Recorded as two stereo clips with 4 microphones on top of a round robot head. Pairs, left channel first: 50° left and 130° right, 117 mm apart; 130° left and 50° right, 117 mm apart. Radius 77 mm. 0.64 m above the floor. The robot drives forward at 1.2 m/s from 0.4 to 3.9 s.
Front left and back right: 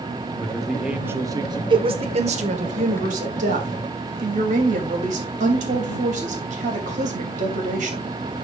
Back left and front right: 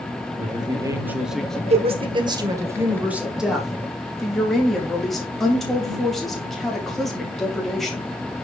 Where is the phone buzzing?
I don't hear a phone buzzing.